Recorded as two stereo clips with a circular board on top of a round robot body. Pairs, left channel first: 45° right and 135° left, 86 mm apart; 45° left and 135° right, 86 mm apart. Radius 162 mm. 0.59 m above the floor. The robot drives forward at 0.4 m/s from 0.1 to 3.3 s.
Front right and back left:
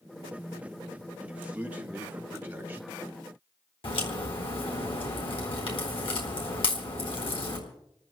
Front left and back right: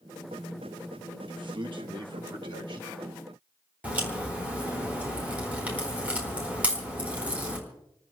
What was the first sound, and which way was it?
A man speaking, 150° right.